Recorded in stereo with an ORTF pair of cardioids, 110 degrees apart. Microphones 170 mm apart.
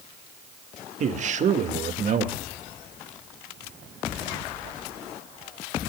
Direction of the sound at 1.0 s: 45° right.